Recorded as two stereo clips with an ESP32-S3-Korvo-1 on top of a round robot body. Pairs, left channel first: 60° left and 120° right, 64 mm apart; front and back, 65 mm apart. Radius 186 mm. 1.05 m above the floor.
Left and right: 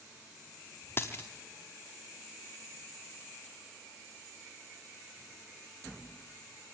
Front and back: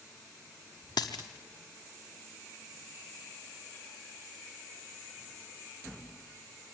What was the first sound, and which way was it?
A dropped coin, straight ahead.